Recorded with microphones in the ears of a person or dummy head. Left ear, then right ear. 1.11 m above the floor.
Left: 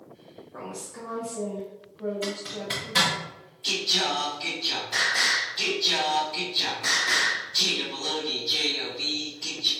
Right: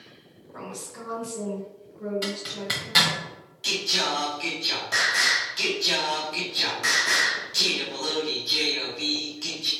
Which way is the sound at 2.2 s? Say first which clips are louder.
Right 2 dB; 25° right (ahead or behind).